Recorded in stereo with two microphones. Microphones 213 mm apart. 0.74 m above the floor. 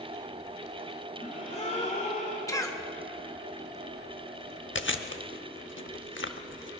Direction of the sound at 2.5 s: 15° left (ahead or behind).